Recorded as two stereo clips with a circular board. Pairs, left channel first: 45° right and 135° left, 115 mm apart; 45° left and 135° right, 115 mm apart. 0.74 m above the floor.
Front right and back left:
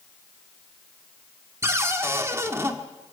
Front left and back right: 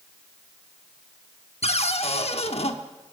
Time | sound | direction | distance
1.6 | a cupboard door | 70° left | 1.1 m